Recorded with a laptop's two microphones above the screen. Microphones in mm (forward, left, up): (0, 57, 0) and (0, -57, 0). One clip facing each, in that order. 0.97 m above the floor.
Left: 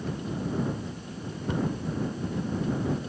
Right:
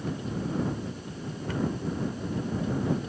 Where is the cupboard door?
20° left (ahead or behind).